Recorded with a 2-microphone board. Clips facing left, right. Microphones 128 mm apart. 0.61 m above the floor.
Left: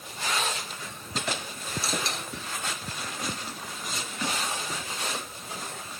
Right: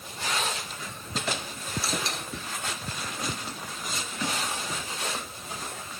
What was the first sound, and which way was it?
Only background noise.